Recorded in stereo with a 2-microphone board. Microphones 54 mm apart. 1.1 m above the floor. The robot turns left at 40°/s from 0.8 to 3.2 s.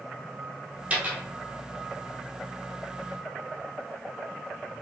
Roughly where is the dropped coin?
Right.